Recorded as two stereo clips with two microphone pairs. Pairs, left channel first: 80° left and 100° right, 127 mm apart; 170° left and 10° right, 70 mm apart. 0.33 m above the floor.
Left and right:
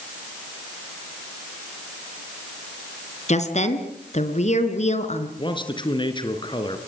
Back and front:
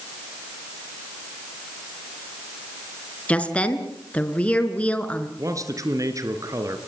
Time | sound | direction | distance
3.3 | a woman speaking | 100° left | 4 m
5.4 | a man speaking | 30° left | 4 m